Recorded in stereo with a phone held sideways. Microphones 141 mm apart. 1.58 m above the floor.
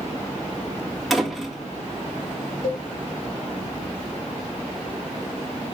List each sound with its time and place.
1.1 s a door slam: centre (ahead or behind), 2 m
2.6 s a cowbell: 70° left (ahead or behind), 3 m